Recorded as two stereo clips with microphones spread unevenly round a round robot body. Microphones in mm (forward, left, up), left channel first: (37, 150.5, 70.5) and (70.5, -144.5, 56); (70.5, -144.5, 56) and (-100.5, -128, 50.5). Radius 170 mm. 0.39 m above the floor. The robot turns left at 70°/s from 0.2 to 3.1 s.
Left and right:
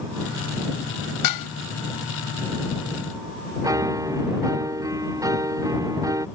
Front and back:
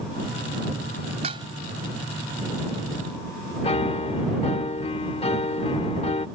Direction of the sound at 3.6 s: 15° right.